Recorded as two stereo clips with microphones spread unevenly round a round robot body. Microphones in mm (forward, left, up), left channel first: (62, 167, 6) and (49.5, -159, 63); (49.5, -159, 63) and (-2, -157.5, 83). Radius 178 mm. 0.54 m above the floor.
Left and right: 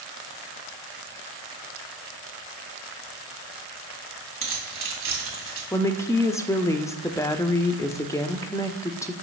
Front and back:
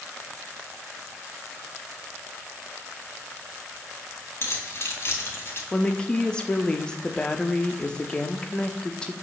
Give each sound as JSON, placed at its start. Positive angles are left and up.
{"t": 4.4, "sound": "keys jangling", "azimuth_deg": -40, "distance_m": 3.0}
{"t": 5.7, "sound": "a woman speaking", "azimuth_deg": 25, "distance_m": 0.8}